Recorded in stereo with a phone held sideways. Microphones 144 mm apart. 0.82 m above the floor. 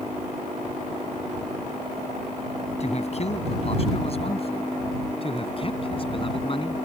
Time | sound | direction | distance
2.8 | a man speaking | 50° left (ahead or behind) | ?